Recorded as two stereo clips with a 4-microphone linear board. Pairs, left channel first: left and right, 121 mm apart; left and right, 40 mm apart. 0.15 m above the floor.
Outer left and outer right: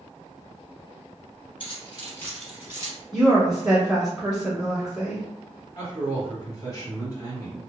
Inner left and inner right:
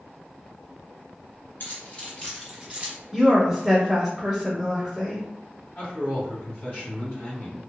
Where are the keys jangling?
50° left (ahead or behind), 1.6 m; by 3.0 s 35° right (ahead or behind), 1.3 m.